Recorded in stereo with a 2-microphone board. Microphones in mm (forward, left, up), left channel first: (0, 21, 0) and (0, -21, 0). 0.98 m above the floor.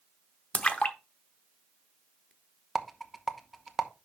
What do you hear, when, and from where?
0.5 s a splash: 30° left (ahead or behind), 0.7 m
2.8 s a rattle: centre (ahead or behind), 0.8 m